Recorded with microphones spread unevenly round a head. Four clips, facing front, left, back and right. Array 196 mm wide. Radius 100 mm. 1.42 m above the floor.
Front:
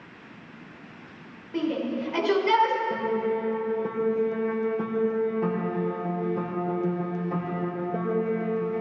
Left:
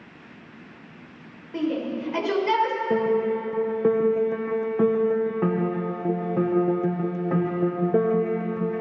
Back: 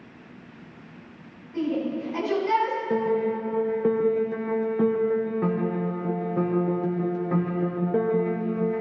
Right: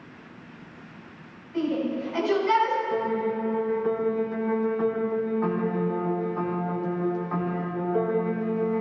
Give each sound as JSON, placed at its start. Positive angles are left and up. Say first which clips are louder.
{"t": 1.5, "sound": "a shout", "louder": "even, back 1 dB", "azimuth_deg": 45, "distance_m": 6.0}
{"t": 2.9, "sound": "a piano", "louder": "left 4 dB, back 2 dB", "azimuth_deg": 115, "distance_m": 1.3}